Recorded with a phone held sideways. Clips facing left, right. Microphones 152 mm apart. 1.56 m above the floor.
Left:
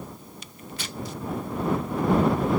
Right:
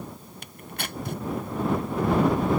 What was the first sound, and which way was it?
Tearing paper, 55° right (ahead or behind).